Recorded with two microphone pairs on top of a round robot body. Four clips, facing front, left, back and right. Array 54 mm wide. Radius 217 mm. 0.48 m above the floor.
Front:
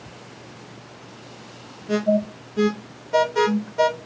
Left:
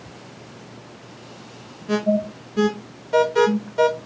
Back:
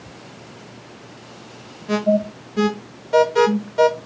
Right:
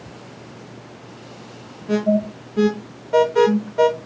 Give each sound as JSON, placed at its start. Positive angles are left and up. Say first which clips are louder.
{"t": 1.9, "sound": "an alarm", "louder": "right 2 dB, back 2 dB", "azimuth_deg": 145, "distance_m": 1.4}